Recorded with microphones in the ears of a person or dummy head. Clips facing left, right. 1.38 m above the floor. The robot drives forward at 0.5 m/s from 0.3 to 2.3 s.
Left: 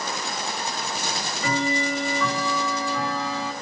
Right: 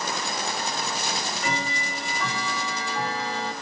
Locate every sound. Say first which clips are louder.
1.0 s ticking: left 1 dB; 85° left, 7 m